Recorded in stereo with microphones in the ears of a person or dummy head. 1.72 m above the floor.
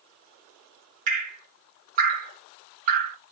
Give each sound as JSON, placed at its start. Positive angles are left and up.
{"t": 1.1, "sound": "dripping", "side_deg": -45, "distance_m": 1.2}